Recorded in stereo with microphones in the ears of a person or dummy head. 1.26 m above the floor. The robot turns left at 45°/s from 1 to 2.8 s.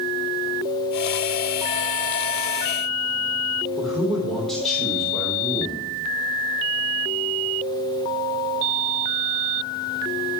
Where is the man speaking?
Centre (ahead or behind), 3 m.